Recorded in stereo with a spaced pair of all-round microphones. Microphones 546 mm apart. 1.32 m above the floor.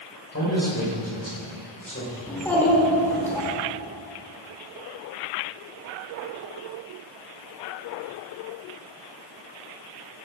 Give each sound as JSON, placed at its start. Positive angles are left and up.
{"t": 0.3, "sound": "a man speaking", "side_deg": 30, "distance_m": 6.0}
{"t": 2.3, "sound": "a child speaking", "side_deg": 5, "distance_m": 4.0}